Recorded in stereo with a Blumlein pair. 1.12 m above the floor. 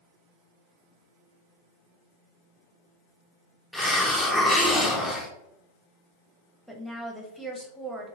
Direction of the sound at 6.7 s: Straight ahead.